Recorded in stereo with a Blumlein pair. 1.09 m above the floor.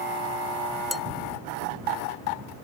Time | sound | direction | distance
0.9 | dishes clattering | 10° left | ?